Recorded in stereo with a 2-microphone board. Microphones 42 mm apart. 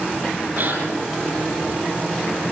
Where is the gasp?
45° right (ahead or behind), 9 m.